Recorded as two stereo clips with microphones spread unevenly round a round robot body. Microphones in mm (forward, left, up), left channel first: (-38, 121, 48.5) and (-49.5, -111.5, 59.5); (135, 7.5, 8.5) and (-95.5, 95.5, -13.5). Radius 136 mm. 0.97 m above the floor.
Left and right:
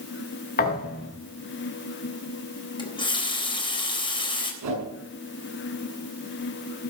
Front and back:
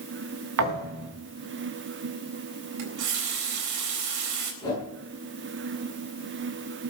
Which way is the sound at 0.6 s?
140° left.